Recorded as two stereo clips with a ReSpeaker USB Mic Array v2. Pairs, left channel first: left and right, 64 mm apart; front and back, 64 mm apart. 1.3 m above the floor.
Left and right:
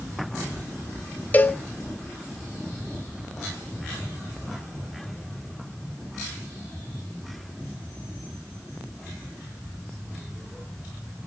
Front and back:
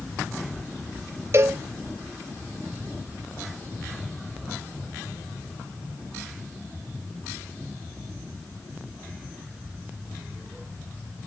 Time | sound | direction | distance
1.3 | a cowbell | 145° left | 0.8 m